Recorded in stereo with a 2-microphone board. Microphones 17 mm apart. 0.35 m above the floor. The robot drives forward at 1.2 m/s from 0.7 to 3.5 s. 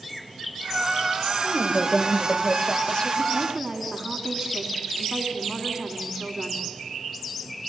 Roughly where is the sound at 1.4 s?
Left.